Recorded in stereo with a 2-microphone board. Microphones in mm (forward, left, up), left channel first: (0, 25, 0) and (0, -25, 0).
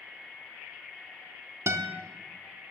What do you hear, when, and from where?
1.7 s a guitar: 80° right, 0.8 m